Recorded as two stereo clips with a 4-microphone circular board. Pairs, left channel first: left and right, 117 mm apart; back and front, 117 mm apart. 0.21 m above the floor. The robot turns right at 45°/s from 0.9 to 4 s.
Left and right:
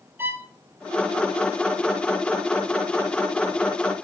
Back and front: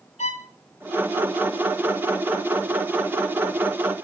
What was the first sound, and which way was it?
A violin, 160° right.